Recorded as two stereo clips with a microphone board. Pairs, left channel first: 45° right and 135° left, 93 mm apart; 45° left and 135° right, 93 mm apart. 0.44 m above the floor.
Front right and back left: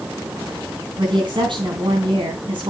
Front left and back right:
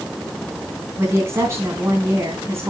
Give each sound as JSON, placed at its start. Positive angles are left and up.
{"t": 1.0, "sound": "a woman speaking", "azimuth_deg": 165, "distance_m": 3.5}